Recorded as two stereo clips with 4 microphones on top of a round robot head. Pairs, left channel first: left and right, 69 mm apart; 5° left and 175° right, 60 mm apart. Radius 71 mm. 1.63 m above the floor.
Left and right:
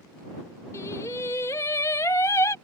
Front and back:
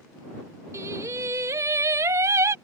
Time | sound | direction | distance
0.7 | singing | 150° left | ?